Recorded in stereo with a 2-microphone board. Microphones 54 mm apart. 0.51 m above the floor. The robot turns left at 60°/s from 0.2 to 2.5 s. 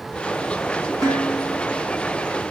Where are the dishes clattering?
80° left, 4.5 m; by 1.8 s 30° left, 4.5 m.